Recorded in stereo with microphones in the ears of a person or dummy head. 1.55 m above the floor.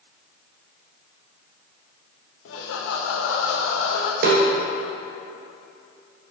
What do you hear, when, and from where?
2.5 s laughter: 65° left (ahead or behind), 0.9 m
4.2 s a snare drum: 50° right (ahead or behind), 1.1 m